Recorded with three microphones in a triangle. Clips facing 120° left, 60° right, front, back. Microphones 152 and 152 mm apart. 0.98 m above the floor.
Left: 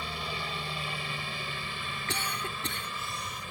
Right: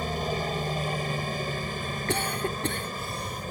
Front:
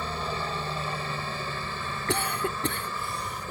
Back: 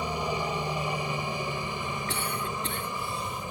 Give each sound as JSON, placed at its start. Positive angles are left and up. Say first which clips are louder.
{"t": 0.0, "sound": "a helicopter", "louder": "right 9 dB, back 2 dB", "azimuth_deg": -105}
{"t": 2.1, "sound": "a cough", "louder": "right 8 dB, front 4 dB", "azimuth_deg": -20}